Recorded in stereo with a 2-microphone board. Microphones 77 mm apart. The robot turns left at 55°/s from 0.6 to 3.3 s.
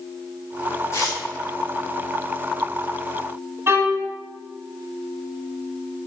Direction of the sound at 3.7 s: 35° right (ahead or behind).